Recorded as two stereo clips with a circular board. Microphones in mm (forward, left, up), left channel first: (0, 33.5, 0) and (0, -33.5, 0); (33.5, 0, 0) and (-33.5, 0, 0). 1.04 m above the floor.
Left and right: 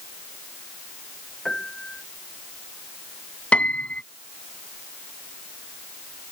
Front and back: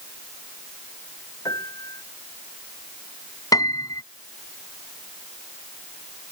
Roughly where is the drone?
I don't hear a drone.